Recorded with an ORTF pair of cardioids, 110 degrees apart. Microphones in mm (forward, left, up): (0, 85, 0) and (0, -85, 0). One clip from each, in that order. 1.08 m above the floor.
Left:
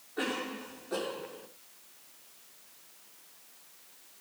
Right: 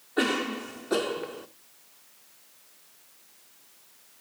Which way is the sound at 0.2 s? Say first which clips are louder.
Right 8 dB; 65° right.